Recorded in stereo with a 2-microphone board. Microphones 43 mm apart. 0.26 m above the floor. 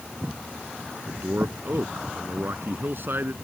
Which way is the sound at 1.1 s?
60° right (ahead or behind).